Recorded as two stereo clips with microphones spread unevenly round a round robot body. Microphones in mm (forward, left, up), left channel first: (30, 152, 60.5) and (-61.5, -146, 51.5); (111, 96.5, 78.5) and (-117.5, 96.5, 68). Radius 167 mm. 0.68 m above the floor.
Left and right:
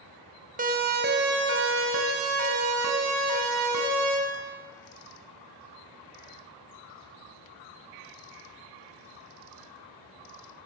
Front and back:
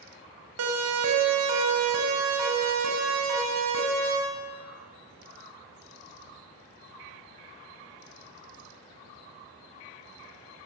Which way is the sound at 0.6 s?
170° right.